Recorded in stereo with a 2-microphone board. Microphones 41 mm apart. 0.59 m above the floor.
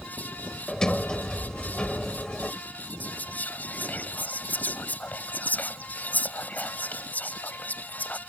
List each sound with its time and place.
0.7 s a sliding door: 15° left (ahead or behind)
3.0 s whispering: 45° left (ahead or behind)